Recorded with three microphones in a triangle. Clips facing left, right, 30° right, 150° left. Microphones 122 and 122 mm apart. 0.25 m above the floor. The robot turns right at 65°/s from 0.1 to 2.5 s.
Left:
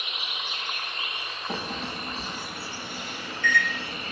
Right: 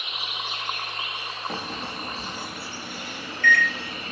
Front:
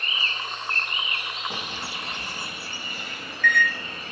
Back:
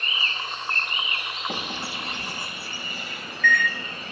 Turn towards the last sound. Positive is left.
turn(degrees=-125)